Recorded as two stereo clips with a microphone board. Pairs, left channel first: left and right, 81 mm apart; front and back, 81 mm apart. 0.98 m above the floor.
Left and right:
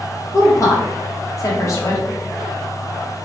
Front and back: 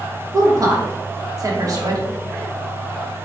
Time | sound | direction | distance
0.3 | a woman speaking | 140° left | 1.1 m